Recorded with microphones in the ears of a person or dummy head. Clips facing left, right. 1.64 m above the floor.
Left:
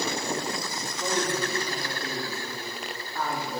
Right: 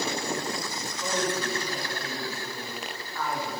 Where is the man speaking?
40° left (ahead or behind), 4.5 m; by 3.6 s 45° left (ahead or behind), 2 m.